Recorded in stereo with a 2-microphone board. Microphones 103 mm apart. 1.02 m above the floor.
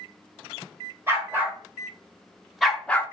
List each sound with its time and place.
1.1 s a dog barking: 20° right (ahead or behind), 1.7 m; by 3.0 s 20° left (ahead or behind), 0.6 m